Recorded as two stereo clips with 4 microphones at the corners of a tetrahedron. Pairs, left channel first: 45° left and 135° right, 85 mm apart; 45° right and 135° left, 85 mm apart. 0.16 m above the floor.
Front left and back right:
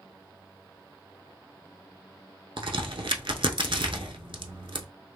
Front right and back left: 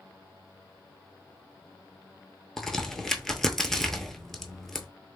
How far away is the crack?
About 0.5 m.